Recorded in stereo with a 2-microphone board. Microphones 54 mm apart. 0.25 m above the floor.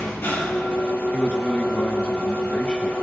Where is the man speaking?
20° left (ahead or behind), 2 m.